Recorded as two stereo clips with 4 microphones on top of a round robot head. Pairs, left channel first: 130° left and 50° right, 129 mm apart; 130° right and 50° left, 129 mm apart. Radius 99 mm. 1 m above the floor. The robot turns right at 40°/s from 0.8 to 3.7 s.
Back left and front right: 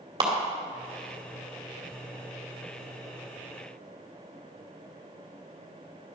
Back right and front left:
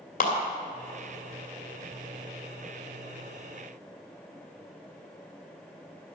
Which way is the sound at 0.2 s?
110° right.